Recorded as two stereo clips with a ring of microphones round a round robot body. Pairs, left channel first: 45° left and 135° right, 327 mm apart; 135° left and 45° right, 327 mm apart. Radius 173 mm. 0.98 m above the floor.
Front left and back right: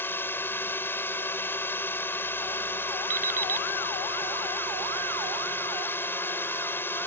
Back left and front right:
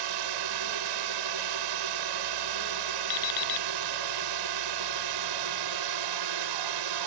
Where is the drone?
40° right.